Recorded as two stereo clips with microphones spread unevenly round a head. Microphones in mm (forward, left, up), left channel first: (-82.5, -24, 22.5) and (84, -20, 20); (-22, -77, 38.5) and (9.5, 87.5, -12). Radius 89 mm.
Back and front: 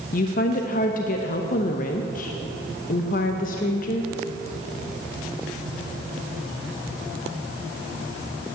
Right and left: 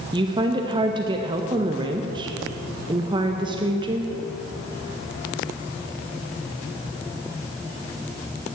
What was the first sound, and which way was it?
A woman speaking, 140° left.